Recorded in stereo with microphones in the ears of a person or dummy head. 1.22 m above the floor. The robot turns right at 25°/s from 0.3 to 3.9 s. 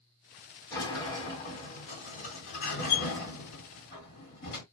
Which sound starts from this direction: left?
A sliding door, at 0.7 s.